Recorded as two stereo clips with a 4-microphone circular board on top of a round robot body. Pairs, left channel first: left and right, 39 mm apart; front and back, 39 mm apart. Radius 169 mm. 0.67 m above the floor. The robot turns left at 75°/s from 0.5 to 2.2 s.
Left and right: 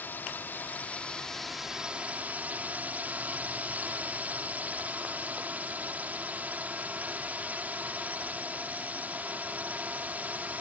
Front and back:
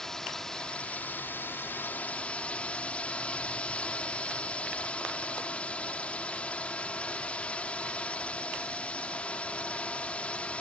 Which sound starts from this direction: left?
A drone, at 0.0 s.